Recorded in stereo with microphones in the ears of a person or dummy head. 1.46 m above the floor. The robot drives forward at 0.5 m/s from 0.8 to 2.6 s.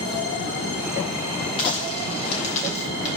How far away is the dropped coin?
About 3.5 m.